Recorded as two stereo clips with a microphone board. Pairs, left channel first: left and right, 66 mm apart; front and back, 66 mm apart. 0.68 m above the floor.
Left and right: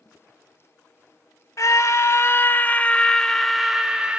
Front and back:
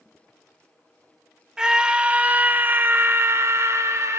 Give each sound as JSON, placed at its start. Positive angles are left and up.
{"t": 1.6, "sound": "a scream", "azimuth_deg": 105, "distance_m": 1.2}